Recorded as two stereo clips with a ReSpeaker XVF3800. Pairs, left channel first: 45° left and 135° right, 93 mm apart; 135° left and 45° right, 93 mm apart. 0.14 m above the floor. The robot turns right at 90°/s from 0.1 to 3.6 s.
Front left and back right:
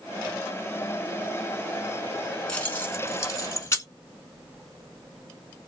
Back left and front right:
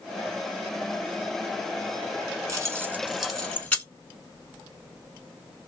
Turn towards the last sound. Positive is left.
turn(degrees=70)